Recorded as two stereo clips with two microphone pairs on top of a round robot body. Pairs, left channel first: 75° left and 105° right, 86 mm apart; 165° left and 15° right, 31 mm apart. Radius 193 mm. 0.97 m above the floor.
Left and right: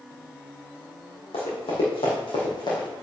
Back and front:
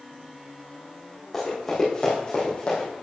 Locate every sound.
1.3 s running footsteps: 85° left, 4 m; by 2.9 s 115° left, 3 m